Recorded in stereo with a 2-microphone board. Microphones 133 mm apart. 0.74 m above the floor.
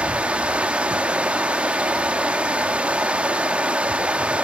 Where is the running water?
10° right (ahead or behind), 1.0 m.